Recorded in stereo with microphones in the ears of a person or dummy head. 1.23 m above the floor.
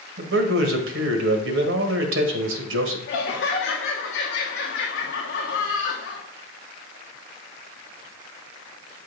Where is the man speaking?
80° right, 1.4 m.